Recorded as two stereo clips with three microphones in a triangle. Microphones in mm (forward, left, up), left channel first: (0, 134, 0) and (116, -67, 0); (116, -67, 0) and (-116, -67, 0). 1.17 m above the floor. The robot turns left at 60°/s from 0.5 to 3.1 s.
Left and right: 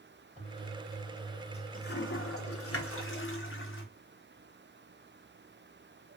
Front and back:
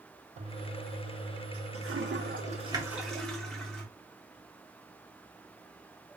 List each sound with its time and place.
0.4 s a toilet flushing: 115° right, 1.0 m; by 3.9 s 85° left, 1.0 m